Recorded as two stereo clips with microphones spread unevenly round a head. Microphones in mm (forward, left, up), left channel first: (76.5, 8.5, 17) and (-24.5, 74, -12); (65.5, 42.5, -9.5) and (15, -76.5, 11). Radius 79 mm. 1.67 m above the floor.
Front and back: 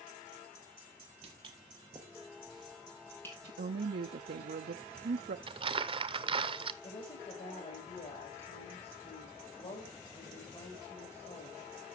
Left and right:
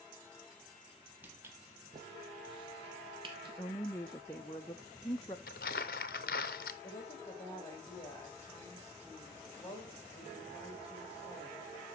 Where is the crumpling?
95° left, 0.8 m.